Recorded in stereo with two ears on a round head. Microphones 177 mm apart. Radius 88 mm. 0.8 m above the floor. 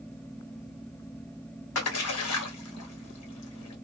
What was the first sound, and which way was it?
A splash, 85° left.